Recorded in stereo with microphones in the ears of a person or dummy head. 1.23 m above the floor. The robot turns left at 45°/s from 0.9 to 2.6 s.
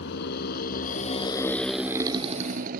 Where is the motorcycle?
70° left (ahead or behind); by 2.8 s 55° right (ahead or behind).